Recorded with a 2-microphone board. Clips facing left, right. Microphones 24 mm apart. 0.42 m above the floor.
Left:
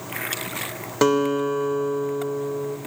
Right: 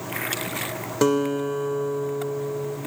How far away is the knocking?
I don't hear knocking.